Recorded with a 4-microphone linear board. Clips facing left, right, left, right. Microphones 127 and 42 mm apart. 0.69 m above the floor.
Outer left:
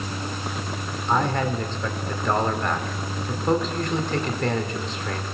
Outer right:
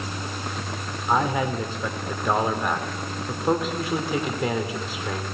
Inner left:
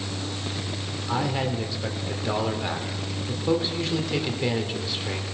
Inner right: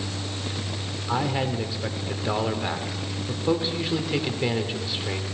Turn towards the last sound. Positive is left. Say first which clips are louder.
# even, inner right 1 dB
turn(degrees=-10)  # may be behind; listen again after turning